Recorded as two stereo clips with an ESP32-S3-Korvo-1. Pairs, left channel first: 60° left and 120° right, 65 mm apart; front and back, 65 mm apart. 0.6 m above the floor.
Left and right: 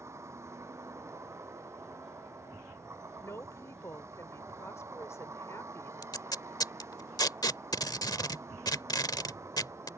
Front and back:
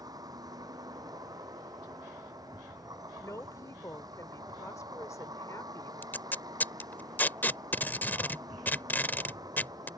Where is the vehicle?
165° right.